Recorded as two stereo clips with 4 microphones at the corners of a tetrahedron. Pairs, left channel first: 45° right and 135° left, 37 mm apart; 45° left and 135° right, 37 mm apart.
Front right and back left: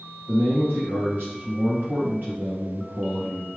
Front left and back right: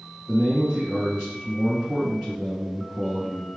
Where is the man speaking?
155° left, 2 m.